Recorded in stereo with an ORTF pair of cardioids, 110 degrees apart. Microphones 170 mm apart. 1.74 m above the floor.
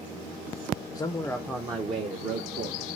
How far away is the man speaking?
About 0.5 m.